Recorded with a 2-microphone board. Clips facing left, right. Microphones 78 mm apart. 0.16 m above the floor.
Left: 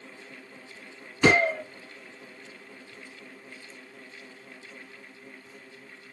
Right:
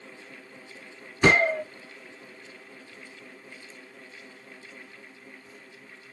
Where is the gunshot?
25° right (ahead or behind), 2.5 m.